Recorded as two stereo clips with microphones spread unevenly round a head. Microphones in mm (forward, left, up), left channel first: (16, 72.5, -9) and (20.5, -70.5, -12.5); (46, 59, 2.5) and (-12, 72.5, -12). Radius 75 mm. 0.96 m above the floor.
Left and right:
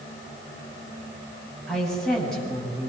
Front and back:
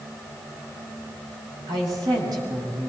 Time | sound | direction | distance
1.7 | a woman speaking | straight behind | 6.5 m